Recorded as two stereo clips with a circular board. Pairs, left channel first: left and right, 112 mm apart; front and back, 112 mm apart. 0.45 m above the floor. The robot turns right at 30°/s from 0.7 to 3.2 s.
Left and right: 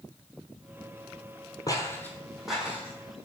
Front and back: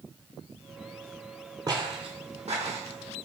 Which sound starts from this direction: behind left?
Footsteps, at 1.7 s.